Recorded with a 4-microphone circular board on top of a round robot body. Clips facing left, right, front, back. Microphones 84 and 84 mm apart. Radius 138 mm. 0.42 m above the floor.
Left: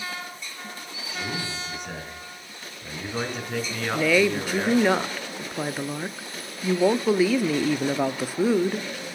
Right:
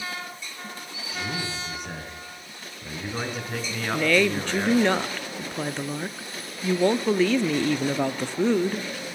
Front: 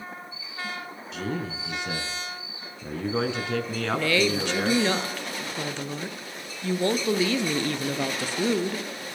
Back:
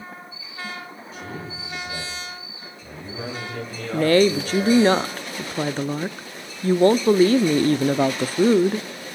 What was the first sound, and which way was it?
A man speaking, straight ahead.